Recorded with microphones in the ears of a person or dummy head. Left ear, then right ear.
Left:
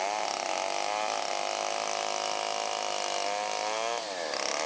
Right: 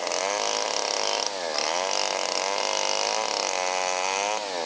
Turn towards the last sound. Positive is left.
No sound to turn to.